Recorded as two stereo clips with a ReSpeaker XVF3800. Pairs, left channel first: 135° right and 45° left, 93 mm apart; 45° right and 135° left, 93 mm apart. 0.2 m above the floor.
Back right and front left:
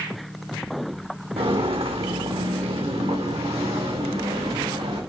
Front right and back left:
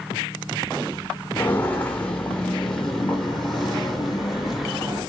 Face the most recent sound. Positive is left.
turn(degrees=45)